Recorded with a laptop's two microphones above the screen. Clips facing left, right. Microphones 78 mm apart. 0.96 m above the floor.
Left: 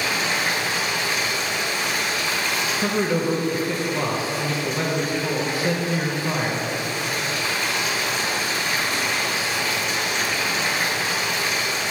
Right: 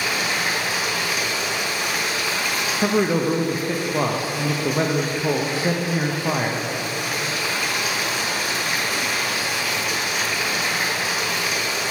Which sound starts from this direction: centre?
Running water, at 0.0 s.